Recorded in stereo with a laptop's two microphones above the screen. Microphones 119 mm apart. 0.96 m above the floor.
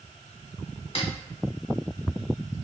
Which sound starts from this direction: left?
A snare drum, at 0.9 s.